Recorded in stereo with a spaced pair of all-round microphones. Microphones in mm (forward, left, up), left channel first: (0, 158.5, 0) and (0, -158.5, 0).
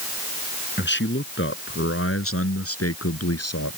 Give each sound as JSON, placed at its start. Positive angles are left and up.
{"t": 0.8, "sound": "a man speaking", "side_deg": 35}